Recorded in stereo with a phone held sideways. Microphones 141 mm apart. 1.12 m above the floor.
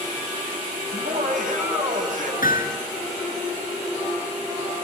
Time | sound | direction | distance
0.9 | laughter | 70° right (ahead or behind) | 7.5 m
2.4 | hammering | 85° left | 7.5 m